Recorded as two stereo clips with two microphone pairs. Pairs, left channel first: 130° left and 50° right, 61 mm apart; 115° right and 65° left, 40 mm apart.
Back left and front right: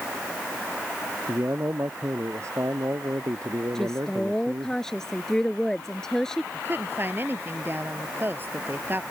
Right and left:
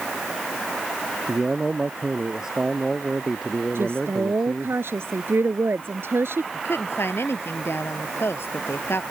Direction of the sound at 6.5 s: 105° right.